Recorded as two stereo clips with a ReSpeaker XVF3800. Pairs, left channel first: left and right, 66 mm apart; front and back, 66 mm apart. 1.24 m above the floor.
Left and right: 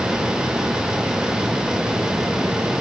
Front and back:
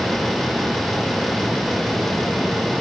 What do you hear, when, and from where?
Only background noise.